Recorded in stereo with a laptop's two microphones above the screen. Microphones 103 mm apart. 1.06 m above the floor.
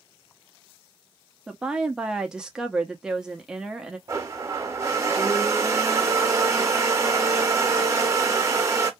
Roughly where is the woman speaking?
Centre.